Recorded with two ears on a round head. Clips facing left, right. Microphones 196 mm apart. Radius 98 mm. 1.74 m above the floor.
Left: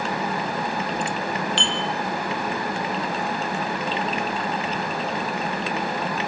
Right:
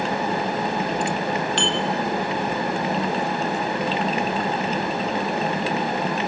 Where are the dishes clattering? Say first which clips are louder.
Right 4 dB; 45° right (ahead or behind), 2.5 m.